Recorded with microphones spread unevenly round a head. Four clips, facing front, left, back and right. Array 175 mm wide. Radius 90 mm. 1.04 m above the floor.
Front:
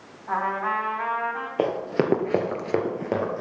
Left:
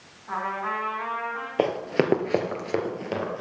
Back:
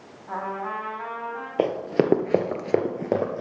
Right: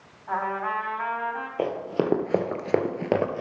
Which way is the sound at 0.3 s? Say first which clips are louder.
Right 2 dB, front 5 dB; 25° right.